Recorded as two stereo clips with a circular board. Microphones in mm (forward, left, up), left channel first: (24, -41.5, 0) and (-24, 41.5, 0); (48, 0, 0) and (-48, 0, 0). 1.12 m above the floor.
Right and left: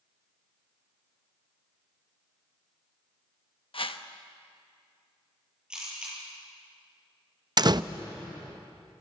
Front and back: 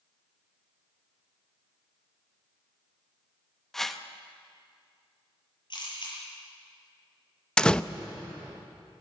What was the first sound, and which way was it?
A whoosh, 85° right.